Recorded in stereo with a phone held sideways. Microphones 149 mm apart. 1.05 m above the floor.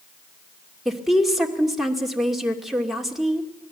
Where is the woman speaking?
Centre (ahead or behind), 2.5 m.